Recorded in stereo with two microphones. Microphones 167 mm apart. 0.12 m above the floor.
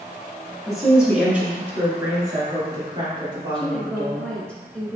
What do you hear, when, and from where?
0.7 s a woman speaking: centre (ahead or behind), 1.6 m; by 4.3 s 30° right (ahead or behind), 2.5 m
3.5 s a woman speaking: 5° left (ahead or behind), 1.2 m